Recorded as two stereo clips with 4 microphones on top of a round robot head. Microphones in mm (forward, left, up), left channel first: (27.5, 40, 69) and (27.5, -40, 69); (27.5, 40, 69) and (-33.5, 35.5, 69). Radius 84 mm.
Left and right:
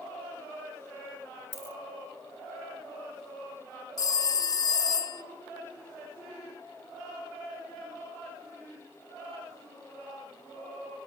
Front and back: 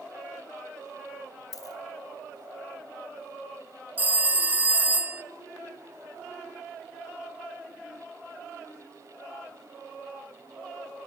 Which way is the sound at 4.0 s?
120° left.